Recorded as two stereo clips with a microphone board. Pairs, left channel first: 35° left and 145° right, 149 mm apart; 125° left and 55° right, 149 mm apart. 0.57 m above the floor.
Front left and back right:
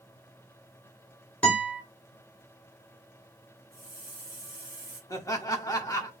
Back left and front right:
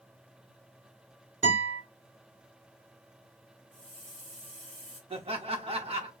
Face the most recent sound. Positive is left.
turn(degrees=-25)